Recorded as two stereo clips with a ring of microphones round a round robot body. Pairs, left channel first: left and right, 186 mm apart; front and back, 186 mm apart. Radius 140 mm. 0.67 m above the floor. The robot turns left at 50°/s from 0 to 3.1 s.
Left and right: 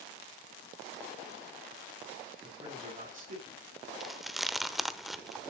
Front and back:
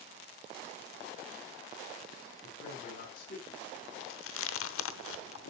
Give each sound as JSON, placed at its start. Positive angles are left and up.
{"t": 2.4, "sound": "a man speaking", "azimuth_deg": -10, "distance_m": 5.0}
{"t": 4.0, "sound": "chewing", "azimuth_deg": 0, "distance_m": 0.9}